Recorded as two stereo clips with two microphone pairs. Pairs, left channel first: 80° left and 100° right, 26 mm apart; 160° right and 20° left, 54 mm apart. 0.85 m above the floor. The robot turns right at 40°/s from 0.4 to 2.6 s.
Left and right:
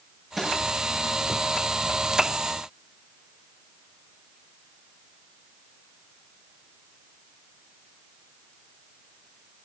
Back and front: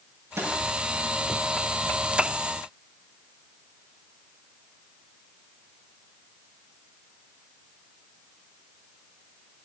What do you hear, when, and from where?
0.4 s a snare drum: 10° right, 9.5 m; by 0.5 s 5° right, 9.5 m